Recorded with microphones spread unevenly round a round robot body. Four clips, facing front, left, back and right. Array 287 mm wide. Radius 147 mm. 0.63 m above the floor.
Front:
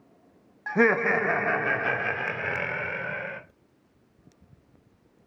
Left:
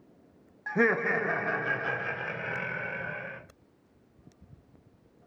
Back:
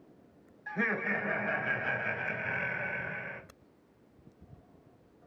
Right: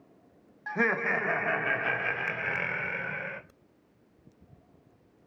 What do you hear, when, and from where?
0.7 s laughter: 20° left, 1.3 m; by 3.4 s 30° right, 2.5 m